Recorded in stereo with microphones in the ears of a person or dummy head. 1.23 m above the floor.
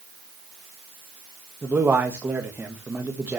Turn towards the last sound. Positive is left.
turn(degrees=-10)  # may be behind; listen again after turning